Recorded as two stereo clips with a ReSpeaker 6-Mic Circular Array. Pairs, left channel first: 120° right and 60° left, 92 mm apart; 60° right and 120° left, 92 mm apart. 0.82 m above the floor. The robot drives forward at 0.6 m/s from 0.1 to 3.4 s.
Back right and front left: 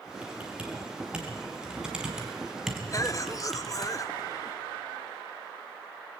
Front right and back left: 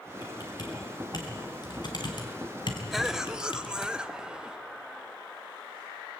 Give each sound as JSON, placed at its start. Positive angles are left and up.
{"t": 0.2, "sound": "typing on a keyboard", "azimuth_deg": -20, "distance_m": 4.5}
{"t": 2.9, "sound": "a cough", "azimuth_deg": -150, "distance_m": 0.9}